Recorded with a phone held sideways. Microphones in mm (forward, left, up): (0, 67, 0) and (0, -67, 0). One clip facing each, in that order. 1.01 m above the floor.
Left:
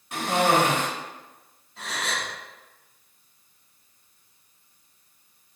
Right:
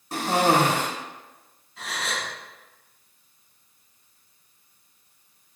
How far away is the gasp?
About 1.8 m.